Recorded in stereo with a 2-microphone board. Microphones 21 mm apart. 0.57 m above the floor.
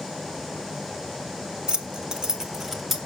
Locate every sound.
1.7 s keys jangling: 50° right (ahead or behind), 0.9 m; by 3.0 s 10° right (ahead or behind), 1.5 m